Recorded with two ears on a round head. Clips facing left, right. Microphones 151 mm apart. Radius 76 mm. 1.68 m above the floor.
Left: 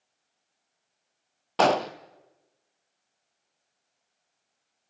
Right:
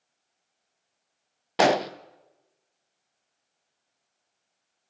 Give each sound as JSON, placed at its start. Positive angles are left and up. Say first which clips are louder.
{"t": 1.6, "sound": "an explosion", "louder": "right 1 dB", "side_deg": -10, "distance_m": 0.7}